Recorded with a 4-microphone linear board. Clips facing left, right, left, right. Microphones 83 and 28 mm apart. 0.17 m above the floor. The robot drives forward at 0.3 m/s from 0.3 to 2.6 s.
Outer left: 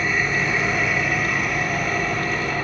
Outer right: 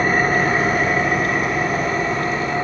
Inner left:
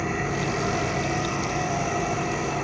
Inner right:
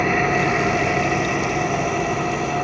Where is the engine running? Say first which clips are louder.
Outer right 5 dB, inner right 8 dB; 45° right (ahead or behind), 0.8 m; by 2.7 s 25° right (ahead or behind), 1.4 m.